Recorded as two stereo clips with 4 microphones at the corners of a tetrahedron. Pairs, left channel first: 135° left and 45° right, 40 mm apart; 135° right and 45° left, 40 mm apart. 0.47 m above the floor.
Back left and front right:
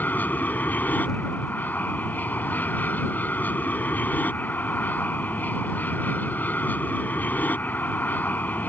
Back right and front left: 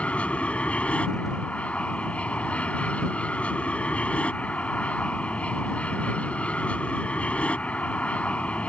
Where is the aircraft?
170° left.